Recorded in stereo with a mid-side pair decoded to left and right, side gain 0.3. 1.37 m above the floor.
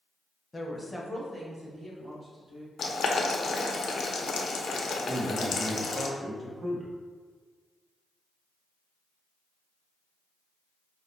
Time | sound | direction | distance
0.5 | a woman speaking | 35° left | 0.8 m
2.8 | boiling | 65° left | 0.6 m
5.1 | a man speaking | 50° right | 0.9 m